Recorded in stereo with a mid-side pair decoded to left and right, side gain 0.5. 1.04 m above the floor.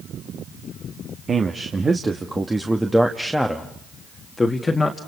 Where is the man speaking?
35° right, 2 m; by 5.0 s 30° left, 2 m.